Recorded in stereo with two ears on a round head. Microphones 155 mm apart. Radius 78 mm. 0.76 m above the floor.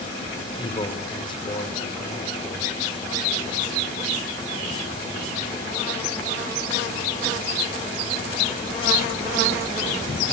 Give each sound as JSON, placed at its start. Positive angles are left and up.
{"t": 0.6, "sound": "a man speaking", "side_deg": 30, "distance_m": 3.5}